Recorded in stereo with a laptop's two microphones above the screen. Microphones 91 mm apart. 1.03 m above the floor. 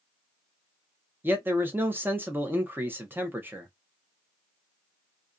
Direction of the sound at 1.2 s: 20° right (ahead or behind).